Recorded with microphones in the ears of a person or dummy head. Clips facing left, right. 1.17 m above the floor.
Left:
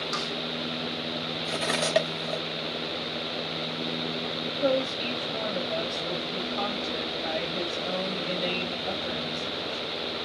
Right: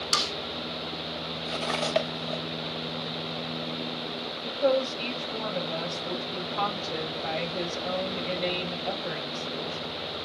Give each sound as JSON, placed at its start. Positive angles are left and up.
{"t": 0.1, "sound": "a snare drum", "side_deg": -40, "distance_m": 0.9}
{"t": 1.4, "sound": "cutlery clinking", "side_deg": 15, "distance_m": 1.2}
{"t": 4.4, "sound": "a woman speaking", "side_deg": -25, "distance_m": 5.0}